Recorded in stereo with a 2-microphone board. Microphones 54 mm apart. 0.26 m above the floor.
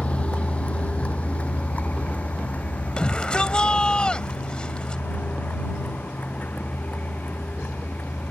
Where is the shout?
15° left (ahead or behind).